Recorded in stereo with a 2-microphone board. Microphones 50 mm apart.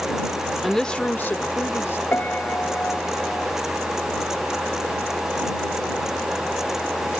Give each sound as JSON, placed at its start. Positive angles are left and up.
{"t": 0.6, "sound": "a woman speaking", "side_deg": -5}
{"t": 2.1, "sound": "a piano", "side_deg": 35}